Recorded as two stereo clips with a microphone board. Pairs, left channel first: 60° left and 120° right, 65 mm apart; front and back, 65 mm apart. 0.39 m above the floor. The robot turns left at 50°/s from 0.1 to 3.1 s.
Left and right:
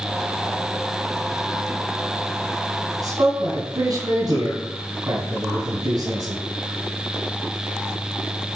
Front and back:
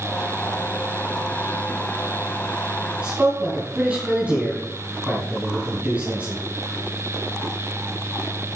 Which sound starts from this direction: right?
A man speaking, at 3.0 s.